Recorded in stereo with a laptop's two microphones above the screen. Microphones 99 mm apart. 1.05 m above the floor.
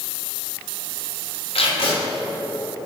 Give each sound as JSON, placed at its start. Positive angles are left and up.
{"t": 1.6, "sound": "tape being pulled", "side_deg": 85, "distance_m": 2.5}